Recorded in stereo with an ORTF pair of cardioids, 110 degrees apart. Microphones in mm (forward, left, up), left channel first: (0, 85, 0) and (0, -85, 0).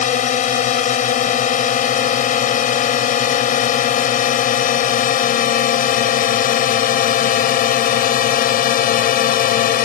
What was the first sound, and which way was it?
A drone, 50° left.